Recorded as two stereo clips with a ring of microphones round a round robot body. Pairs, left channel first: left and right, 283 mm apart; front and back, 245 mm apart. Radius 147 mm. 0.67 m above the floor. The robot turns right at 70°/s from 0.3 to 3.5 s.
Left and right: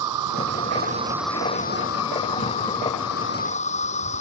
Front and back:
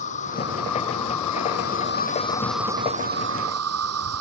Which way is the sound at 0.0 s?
65° right.